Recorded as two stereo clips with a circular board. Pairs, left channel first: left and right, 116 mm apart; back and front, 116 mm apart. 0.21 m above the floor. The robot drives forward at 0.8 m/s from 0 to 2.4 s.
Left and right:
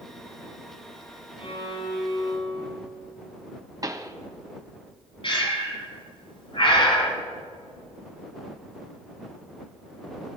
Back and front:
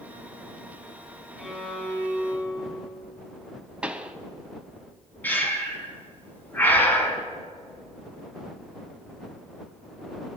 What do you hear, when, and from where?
1.4 s a violin: 85° left, 1.8 m; by 2.8 s 115° left, 1.9 m
3.8 s a pop: 75° right, 0.7 m
5.2 s breathing: 110° left, 1.7 m